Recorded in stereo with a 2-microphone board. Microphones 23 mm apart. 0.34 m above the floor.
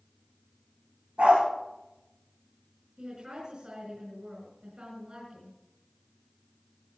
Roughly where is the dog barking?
Right.